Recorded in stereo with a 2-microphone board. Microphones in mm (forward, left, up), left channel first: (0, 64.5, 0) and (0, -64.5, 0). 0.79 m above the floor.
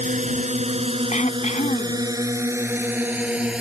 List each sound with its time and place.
0.0 s a drone: 70° right (ahead or behind); by 3.6 s 5° right (ahead or behind)
1.1 s throat clearing: 65° left (ahead or behind)